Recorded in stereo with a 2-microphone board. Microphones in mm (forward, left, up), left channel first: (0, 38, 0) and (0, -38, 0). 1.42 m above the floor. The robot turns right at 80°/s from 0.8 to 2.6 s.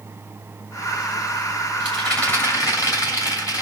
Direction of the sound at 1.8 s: 20° right.